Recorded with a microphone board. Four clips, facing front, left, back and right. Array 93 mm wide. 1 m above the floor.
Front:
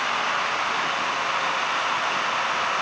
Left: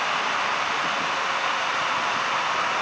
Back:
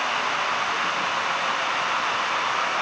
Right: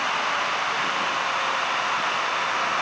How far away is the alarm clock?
No alarm clock in this recording.